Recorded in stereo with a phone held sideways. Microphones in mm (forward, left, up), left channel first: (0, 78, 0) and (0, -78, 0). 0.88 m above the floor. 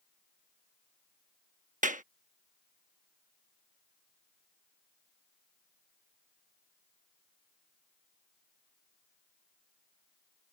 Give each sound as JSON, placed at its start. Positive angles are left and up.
{"t": 1.8, "sound": "a clap", "side_deg": -55}